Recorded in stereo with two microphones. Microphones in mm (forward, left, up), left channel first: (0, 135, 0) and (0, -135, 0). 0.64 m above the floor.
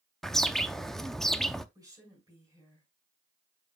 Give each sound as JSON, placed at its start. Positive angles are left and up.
{"t": 0.2, "sound": "a bird", "side_deg": 0, "distance_m": 0.5}
{"t": 1.8, "sound": "a woman speaking", "side_deg": -15, "distance_m": 5.0}